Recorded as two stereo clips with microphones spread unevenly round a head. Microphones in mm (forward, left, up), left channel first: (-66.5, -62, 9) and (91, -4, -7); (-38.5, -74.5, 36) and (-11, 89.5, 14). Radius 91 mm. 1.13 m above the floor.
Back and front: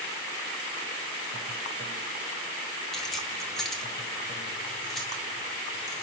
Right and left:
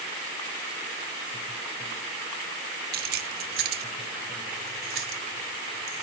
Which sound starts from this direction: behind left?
Keys jangling, at 2.9 s.